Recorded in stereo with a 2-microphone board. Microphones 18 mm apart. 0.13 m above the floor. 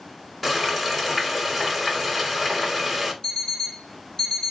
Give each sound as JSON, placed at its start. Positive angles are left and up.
{"t": 0.4, "sound": "frying", "side_deg": 5, "distance_m": 1.2}
{"t": 3.2, "sound": "an alarm clock", "side_deg": 55, "distance_m": 2.0}